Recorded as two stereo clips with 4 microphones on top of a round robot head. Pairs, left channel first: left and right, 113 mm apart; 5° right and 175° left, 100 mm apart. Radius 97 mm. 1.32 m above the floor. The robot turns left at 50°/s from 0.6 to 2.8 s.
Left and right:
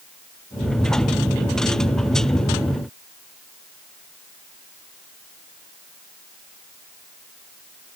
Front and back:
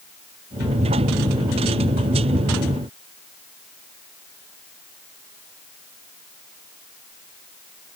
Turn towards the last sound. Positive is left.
No sound to turn to.